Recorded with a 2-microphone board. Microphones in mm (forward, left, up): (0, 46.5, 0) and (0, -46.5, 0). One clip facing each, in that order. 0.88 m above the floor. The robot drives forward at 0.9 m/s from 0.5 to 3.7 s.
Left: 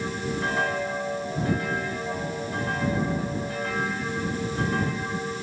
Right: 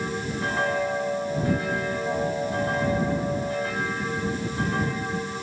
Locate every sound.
Only background noise.